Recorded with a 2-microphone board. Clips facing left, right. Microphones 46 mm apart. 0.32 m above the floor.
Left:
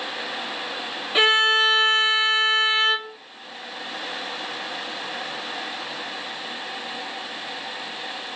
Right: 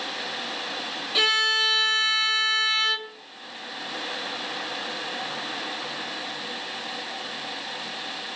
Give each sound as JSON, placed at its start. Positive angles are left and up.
{"t": 1.1, "sound": "a violin", "side_deg": 30, "distance_m": 1.2}